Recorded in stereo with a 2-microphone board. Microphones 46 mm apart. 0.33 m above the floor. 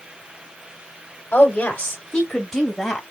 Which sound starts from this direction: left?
A woman speaking, at 1.3 s.